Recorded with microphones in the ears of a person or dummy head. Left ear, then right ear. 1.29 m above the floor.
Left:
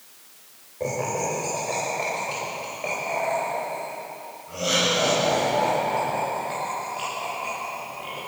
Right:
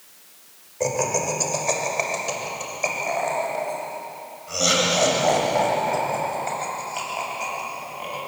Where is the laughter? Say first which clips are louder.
Right 3 dB; 80° right, 6 m; by 8.2 s 75° right (ahead or behind), 9.5 m.